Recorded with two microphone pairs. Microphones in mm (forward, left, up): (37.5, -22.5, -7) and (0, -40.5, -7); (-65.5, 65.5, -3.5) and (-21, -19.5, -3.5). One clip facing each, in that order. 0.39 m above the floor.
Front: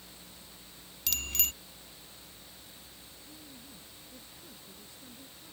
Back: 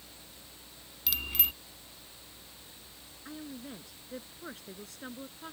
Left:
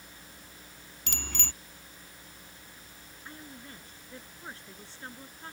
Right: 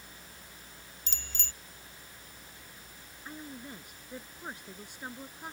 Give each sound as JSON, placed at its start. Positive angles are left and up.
{"t": 1.1, "sound": "a bicycle bell", "azimuth_deg": 130}
{"t": 3.2, "sound": "a woman speaking", "azimuth_deg": -140}